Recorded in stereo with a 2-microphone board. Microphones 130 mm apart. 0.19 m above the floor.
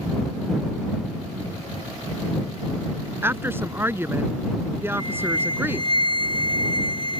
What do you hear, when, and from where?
3.2 s a woman speaking: 20° right (ahead or behind)
5.0 s a flute: 40° right (ahead or behind)